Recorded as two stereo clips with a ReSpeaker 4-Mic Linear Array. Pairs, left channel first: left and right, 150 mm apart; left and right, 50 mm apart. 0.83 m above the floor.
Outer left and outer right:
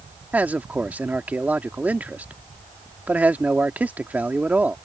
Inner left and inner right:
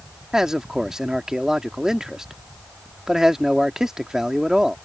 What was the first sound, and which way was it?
A man speaking, 10° right (ahead or behind).